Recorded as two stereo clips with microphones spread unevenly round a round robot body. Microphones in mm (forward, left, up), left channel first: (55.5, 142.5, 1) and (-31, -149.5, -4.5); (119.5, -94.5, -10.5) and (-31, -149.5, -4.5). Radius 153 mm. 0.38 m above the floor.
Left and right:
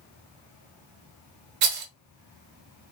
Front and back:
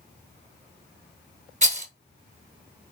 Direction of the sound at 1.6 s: 110° right.